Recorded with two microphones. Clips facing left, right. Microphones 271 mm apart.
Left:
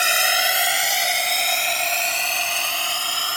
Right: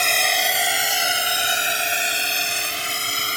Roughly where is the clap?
I don't hear a clap.